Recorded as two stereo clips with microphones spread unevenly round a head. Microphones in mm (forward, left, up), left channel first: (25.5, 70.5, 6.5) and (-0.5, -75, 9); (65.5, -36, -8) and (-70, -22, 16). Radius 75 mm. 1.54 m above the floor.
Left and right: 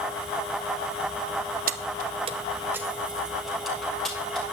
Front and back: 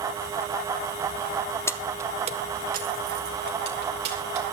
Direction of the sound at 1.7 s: 80° right.